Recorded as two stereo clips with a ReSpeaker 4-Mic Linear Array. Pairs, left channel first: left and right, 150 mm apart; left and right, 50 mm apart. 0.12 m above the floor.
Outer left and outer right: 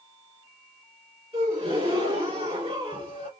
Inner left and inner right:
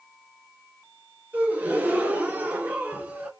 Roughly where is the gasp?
Right.